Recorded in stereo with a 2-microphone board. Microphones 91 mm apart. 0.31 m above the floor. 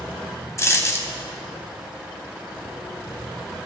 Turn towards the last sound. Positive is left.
turn(degrees=35)  # may be behind; listen again after turning